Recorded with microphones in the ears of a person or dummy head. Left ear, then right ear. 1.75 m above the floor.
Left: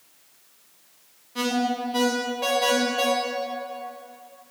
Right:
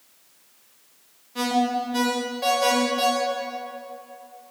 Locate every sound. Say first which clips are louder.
1.4 s an alarm: right 2 dB; 5° right (ahead or behind), 1.4 m